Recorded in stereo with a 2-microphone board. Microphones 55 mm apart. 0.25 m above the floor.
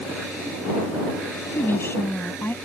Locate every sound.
1.5 s a woman speaking: 45° left (ahead or behind)